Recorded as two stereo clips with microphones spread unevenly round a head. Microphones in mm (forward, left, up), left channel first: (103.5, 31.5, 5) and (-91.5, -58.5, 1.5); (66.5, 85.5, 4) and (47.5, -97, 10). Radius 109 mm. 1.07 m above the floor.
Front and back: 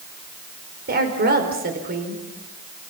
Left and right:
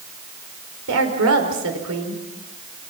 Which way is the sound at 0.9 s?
110° right.